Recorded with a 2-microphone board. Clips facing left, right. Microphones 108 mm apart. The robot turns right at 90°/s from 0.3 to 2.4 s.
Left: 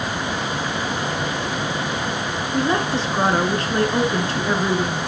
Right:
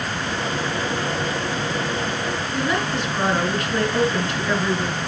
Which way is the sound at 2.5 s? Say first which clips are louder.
Left 4 dB; 30° left (ahead or behind).